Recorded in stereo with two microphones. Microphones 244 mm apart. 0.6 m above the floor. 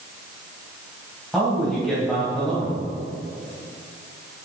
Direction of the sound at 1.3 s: Centre (ahead or behind).